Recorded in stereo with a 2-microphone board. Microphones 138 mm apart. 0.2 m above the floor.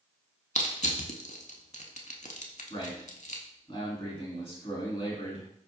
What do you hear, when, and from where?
0.6 s crushing: 60° left (ahead or behind), 0.6 m
2.7 s a man speaking: 40° left (ahead or behind), 1.9 m